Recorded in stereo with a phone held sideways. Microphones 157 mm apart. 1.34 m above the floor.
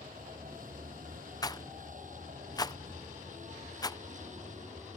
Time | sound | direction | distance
0.0 | a vehicle | 60° right (ahead or behind) | ?
1.4 | a rattle | 25° left (ahead or behind) | ?